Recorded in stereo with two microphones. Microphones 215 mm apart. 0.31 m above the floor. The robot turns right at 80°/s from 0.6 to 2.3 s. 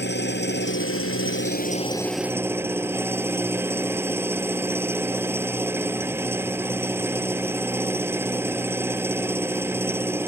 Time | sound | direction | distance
0.0 | an engine running | 55° left | ?